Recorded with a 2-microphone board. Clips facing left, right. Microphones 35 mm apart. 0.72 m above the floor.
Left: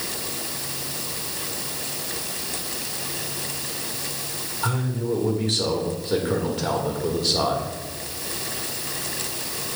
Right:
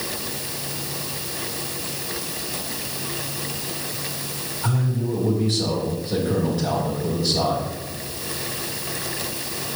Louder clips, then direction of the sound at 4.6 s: Even; 65° left (ahead or behind).